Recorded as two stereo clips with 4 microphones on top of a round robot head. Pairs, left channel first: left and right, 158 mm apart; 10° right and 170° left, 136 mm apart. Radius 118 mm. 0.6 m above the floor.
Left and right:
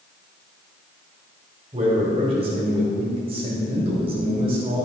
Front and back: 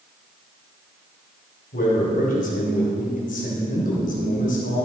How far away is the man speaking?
About 2.5 m.